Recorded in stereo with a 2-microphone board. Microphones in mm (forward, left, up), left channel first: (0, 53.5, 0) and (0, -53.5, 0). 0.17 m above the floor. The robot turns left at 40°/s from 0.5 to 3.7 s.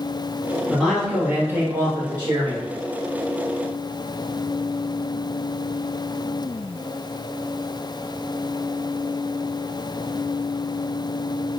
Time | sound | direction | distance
0.7 | a man speaking | 10° left | 1.5 m